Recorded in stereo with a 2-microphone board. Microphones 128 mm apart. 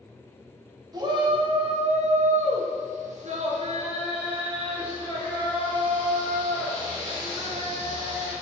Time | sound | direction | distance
0.9 | a shout | 30° right (ahead or behind) | 1.7 m